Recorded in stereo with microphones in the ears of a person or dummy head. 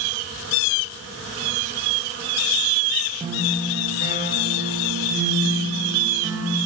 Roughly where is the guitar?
Centre.